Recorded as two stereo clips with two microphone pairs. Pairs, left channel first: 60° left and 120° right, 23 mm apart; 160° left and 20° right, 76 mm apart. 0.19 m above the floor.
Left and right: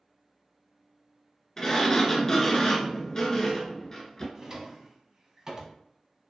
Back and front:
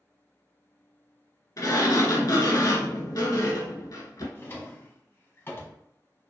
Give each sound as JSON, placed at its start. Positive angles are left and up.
{"t": 1.6, "sound": "a sliding door", "azimuth_deg": 120, "distance_m": 0.5}
{"t": 4.3, "sound": "a drawer", "azimuth_deg": -175, "distance_m": 0.5}